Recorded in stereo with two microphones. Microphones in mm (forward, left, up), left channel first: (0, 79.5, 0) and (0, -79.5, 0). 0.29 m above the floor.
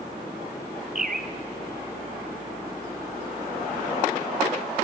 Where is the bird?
65° right (ahead or behind), 1.1 m.